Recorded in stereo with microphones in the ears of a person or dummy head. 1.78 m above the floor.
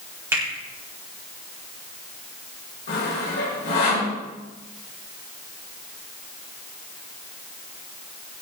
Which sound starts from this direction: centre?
A finger snap, at 0.3 s.